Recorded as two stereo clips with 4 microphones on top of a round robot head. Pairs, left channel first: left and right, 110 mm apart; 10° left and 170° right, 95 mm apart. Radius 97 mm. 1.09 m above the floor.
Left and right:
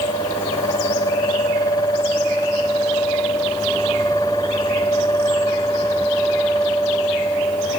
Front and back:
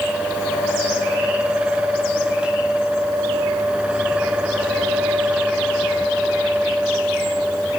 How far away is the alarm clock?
I don't hear an alarm clock.